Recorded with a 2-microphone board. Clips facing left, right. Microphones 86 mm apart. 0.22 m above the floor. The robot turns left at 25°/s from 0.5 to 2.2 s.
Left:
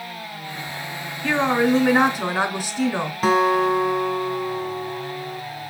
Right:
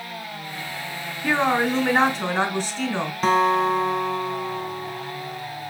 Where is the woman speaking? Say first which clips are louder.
Left 2 dB; 10° right (ahead or behind), 3 m; by 3.1 s 10° left (ahead or behind), 3 m.